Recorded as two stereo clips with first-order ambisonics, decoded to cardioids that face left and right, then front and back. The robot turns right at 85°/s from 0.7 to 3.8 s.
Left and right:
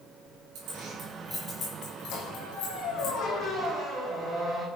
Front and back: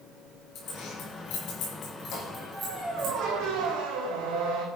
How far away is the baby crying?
I don't hear a baby crying.